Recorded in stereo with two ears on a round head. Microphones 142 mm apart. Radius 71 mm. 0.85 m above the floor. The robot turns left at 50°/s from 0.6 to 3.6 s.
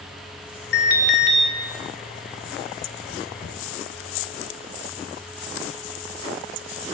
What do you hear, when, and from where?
0.7 s an alarm: 65° left, 1.4 m; by 1.4 s 30° left, 1.4 m